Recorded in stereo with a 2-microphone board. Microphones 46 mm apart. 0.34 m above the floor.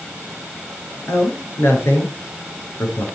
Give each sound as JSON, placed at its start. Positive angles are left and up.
{"t": 1.1, "sound": "a man speaking", "side_deg": 65, "distance_m": 6.0}